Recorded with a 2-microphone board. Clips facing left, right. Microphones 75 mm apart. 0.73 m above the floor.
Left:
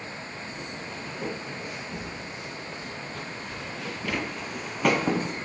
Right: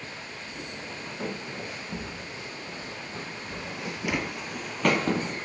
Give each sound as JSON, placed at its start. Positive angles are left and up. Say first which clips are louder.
{"t": 0.5, "sound": "footsteps", "louder": "left 2 dB", "side_deg": -30, "distance_m": 2.5}